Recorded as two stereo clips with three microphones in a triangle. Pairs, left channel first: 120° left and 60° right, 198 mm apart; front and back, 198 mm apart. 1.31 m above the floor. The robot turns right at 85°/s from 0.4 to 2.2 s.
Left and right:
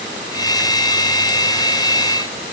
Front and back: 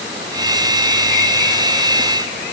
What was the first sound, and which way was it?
Only background noise.